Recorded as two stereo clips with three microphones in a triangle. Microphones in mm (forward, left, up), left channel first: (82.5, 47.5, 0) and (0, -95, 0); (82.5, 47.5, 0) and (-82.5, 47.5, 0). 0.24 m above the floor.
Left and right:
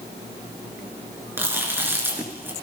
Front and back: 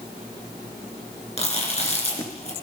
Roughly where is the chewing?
Ahead right.